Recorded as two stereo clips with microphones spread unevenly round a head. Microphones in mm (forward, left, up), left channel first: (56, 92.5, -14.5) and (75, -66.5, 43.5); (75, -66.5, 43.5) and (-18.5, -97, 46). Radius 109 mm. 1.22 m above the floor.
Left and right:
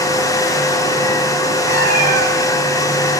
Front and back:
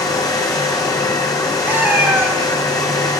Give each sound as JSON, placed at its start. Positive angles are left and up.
{"t": 0.0, "sound": "a fan", "azimuth_deg": 10, "distance_m": 0.9}
{"t": 1.7, "sound": "a cat meowing", "azimuth_deg": -95, "distance_m": 3.0}